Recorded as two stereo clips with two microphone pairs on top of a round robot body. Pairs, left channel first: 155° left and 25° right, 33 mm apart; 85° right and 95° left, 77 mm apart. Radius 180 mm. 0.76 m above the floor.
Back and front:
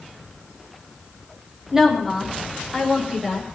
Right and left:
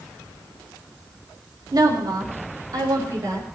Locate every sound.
1.7 s a woman speaking: 50° left, 4.5 m